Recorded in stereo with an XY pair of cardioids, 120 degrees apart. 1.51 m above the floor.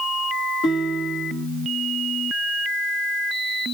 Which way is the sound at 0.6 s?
70° left.